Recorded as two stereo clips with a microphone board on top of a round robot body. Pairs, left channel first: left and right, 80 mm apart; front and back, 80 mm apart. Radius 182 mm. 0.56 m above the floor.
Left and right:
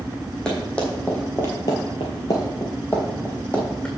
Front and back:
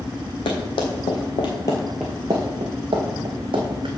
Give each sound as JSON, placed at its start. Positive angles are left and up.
{"t": 0.5, "sound": "running footsteps", "azimuth_deg": 10, "distance_m": 1.7}